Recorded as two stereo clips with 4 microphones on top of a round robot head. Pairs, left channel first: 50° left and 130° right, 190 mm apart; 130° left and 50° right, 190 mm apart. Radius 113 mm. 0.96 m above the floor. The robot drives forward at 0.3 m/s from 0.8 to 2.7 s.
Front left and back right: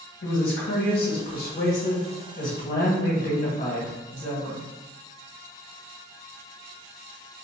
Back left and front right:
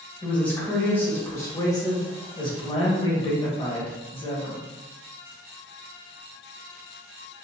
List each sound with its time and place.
0.2 s a woman speaking: 50° left, 1.5 m; by 4.7 s 75° left, 1.3 m